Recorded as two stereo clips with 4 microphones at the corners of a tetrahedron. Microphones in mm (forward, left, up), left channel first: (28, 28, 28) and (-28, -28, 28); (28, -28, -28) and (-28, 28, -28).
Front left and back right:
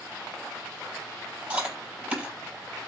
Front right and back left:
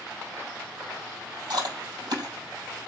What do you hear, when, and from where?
1.5 s chewing: 160° left, 4.5 m